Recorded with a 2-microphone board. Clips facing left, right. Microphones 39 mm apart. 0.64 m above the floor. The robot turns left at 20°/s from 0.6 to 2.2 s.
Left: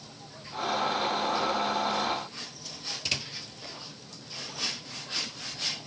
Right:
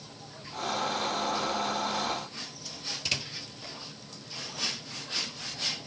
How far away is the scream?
I don't hear a scream.